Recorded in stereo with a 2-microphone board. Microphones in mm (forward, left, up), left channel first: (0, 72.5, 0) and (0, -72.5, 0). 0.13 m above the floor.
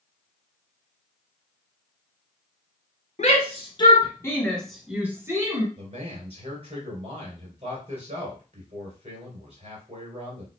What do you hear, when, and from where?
3.2 s a shout: 45° left (ahead or behind), 1.7 m; by 5.7 s 25° right (ahead or behind), 1.7 m
5.8 s a man speaking: 40° right (ahead or behind), 2.5 m